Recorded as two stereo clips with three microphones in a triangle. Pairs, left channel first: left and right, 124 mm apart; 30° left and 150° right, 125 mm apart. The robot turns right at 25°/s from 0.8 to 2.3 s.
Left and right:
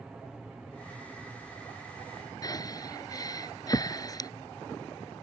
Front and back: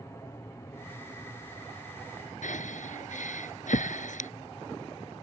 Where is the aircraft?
10° right; by 5.2 s 25° left.